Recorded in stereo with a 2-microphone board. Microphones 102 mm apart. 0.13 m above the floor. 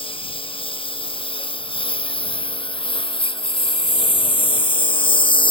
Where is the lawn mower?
60° left (ahead or behind); by 5.5 s 55° left (ahead or behind).